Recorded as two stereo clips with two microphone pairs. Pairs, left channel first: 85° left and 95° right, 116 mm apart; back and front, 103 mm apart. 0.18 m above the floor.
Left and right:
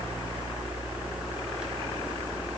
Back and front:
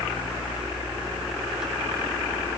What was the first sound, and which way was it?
Only background noise.